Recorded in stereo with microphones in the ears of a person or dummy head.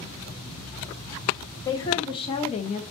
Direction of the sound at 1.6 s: 20° left (ahead or behind).